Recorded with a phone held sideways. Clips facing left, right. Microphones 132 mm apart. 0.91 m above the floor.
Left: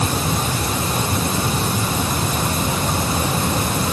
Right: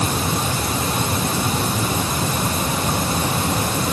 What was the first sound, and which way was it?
Only background noise.